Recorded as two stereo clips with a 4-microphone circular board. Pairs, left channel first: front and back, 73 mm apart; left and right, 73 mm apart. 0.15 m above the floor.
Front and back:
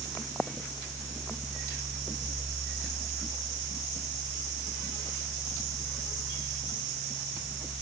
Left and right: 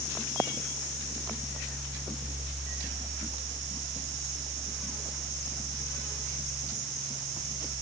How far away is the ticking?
No ticking in this recording.